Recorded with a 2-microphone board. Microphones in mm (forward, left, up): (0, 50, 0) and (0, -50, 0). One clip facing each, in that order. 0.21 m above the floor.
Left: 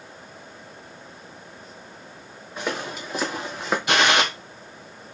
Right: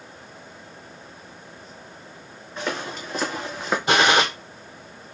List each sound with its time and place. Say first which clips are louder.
2.6 s footsteps: even; 5° left (ahead or behind), 2.5 m; by 3.8 s centre (ahead or behind), 1.8 m
3.9 s a gunshot: right 2 dB; 30° right (ahead or behind), 2 m